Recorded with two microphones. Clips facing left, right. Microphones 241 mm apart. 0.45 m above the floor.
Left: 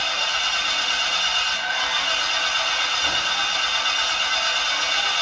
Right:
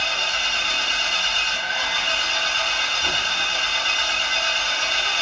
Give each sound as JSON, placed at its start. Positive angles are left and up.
{"t": 0.0, "sound": "an engine running", "side_deg": -20, "distance_m": 1.1}